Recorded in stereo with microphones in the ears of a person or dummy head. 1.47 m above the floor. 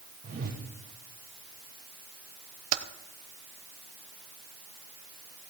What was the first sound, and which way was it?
A whoosh, 45° right (ahead or behind).